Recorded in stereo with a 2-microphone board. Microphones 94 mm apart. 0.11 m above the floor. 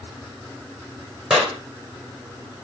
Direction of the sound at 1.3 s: 10° right (ahead or behind).